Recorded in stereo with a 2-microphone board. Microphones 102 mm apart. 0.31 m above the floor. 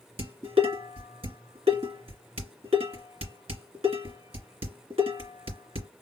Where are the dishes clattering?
75° right (ahead or behind), 2.5 m.